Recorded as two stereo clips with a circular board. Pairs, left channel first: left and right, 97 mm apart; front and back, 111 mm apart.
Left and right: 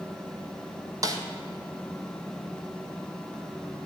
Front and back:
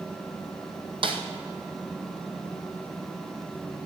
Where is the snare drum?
140° right, 1.4 m.